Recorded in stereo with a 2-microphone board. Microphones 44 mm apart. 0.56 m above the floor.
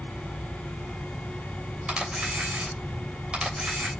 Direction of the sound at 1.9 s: 20° right (ahead or behind).